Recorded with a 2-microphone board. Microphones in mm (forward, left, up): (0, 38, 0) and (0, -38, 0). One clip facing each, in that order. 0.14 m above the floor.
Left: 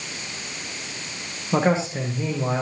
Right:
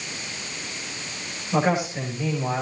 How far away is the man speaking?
About 7 m.